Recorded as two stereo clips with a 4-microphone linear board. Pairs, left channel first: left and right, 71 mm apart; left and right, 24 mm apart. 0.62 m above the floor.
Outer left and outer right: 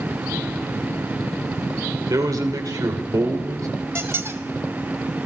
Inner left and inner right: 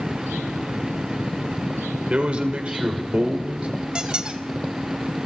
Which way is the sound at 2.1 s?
65° right (ahead or behind).